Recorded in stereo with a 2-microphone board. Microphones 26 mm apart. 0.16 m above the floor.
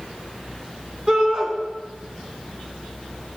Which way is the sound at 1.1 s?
30° right (ahead or behind).